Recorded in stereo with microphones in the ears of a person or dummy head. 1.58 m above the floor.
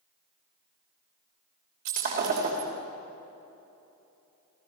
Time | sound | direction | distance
1.9 | breaking glass | 50° right (ahead or behind) | 3 m